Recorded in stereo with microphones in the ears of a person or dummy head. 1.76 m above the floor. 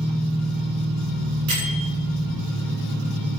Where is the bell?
80° right, 7 m.